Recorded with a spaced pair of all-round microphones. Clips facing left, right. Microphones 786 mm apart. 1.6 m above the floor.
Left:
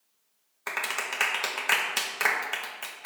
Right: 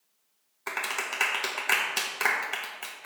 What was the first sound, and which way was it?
A clap, 20° left (ahead or behind).